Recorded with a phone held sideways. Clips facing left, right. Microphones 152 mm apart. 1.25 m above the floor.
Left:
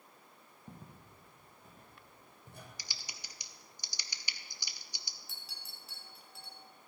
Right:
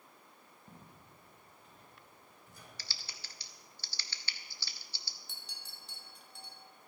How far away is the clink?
About 1.8 m.